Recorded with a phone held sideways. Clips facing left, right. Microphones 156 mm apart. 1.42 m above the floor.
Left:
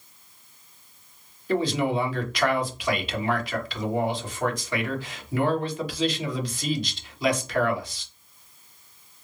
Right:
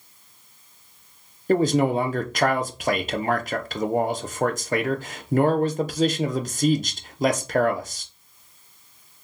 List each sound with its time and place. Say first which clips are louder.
1.5 s a man speaking: right 5 dB; 45° right (ahead or behind), 0.7 m